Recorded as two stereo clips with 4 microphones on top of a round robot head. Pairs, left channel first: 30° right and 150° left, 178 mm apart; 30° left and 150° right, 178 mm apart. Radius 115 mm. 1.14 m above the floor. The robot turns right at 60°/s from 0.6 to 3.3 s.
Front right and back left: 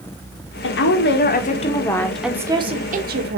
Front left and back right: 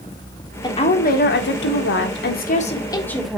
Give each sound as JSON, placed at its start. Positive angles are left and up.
{"t": 0.6, "sound": "a woman speaking", "azimuth_deg": -35, "distance_m": 1.5}